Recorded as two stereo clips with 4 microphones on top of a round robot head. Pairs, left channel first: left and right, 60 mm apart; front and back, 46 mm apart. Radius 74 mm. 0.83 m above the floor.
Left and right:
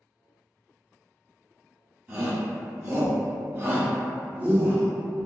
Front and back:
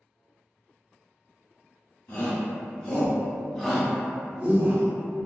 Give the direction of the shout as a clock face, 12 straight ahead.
1 o'clock.